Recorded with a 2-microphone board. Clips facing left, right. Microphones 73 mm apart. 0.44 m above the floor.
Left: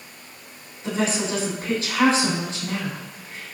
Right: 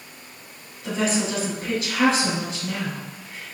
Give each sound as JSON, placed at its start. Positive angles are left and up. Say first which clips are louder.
{"t": 0.8, "sound": "a woman speaking", "louder": "even", "side_deg": 30, "distance_m": 3.5}